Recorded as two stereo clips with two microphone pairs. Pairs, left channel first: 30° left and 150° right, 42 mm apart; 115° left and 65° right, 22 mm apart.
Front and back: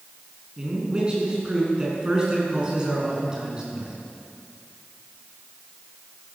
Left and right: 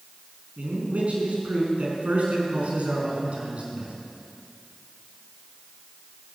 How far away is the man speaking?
About 5 m.